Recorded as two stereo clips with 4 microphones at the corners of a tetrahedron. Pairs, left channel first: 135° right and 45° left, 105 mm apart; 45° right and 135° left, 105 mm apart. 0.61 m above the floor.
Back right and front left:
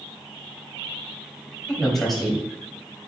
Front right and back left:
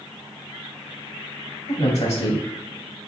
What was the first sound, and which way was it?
A man speaking, 45° right.